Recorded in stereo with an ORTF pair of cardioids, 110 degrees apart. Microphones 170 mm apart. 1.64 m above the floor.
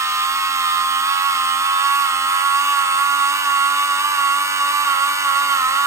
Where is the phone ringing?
No phone ringing in this recording.